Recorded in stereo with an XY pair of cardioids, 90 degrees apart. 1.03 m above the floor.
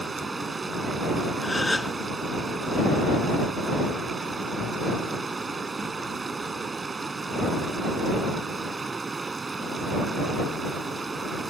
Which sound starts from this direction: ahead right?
Running water, at 0.0 s.